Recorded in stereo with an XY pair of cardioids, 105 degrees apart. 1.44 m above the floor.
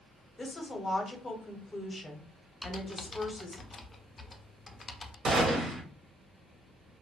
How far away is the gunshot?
About 1.4 m.